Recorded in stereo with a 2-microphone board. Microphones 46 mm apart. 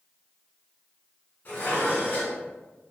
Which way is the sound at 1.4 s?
50° left (ahead or behind).